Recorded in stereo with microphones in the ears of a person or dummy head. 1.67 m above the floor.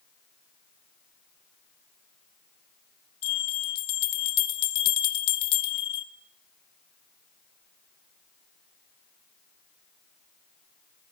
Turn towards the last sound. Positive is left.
turn(degrees=55)  # may be behind; listen again after turning